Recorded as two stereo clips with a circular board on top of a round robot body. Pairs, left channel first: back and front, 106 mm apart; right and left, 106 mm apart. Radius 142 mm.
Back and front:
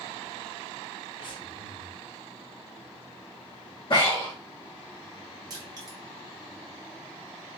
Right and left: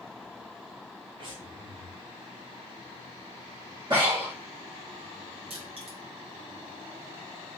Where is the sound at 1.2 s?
135° left, 0.7 m.